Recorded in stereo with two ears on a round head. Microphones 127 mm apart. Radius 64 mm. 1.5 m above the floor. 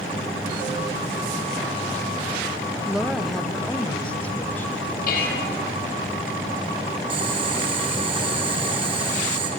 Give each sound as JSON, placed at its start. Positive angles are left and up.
{"t": 2.9, "sound": "a woman speaking", "side_deg": -5, "distance_m": 2.0}
{"t": 5.1, "sound": "dishes clattering", "side_deg": 75, "distance_m": 6.0}
{"t": 7.1, "sound": "boiling", "side_deg": -40, "distance_m": 4.5}